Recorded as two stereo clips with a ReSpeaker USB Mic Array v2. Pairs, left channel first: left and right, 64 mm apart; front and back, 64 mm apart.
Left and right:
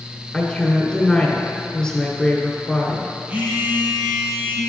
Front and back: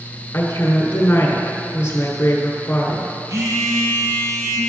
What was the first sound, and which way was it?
A woman speaking, 15° left.